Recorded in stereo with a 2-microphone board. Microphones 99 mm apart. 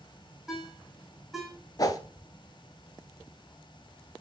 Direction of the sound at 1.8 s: 40° left (ahead or behind).